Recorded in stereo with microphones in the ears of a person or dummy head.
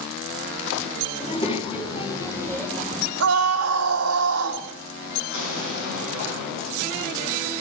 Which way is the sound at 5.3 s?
70° left (ahead or behind).